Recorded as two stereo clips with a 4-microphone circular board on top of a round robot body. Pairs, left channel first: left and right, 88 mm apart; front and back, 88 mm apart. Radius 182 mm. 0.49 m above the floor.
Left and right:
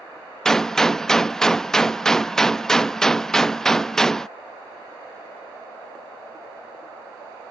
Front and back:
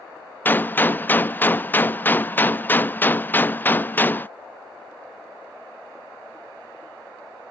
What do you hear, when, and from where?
0.5 s a gunshot: 15° left